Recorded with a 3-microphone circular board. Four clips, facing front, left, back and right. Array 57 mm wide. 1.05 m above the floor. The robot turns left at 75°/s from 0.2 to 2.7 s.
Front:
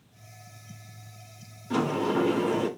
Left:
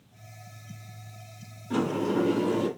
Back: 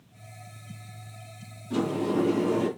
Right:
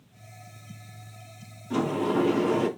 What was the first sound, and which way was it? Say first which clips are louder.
A sliding door: right 1 dB, front 1 dB; 5° right.